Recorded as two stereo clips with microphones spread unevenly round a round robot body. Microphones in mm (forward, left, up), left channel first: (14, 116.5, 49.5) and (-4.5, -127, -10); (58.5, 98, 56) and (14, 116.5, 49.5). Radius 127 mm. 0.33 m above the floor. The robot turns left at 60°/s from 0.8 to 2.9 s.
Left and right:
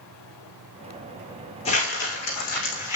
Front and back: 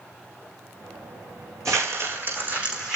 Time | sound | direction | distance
1.6 | crumpling | 155° left | 8.5 m